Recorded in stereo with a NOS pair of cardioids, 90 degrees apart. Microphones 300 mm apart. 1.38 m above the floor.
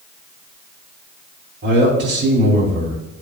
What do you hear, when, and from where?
1.6 s a man speaking: 40° right, 3.5 m